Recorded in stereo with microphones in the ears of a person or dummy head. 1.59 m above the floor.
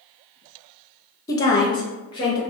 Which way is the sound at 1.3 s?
20° left (ahead or behind).